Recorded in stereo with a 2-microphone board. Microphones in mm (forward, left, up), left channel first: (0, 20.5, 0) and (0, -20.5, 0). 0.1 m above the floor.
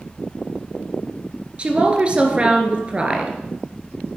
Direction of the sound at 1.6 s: 30° right (ahead or behind).